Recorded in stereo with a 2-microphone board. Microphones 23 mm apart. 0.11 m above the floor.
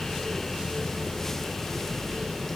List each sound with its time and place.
Only background noise.